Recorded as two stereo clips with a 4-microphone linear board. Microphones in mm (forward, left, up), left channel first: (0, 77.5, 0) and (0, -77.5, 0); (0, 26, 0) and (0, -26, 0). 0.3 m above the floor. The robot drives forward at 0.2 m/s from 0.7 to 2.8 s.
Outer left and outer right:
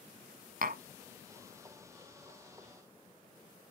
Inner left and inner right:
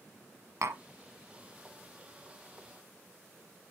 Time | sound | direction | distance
0.6 | tapping | 65° right (ahead or behind) | 1.4 m